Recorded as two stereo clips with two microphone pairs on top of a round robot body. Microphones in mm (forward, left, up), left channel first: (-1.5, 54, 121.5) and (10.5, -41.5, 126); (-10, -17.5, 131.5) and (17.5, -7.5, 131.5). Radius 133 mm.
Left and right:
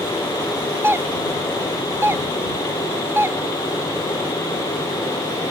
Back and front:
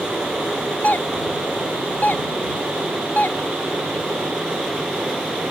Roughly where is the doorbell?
Behind right.